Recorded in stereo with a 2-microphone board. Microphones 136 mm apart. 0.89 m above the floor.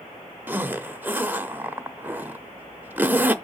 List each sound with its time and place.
0.5 s a zipper: 15° right (ahead or behind), 0.6 m